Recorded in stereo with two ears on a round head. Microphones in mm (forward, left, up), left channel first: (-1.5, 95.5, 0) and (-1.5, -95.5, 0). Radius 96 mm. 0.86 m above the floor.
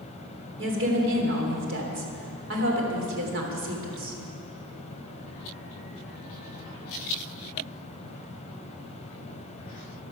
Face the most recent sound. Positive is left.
turn(degrees=-60)  # may be behind; listen again after turning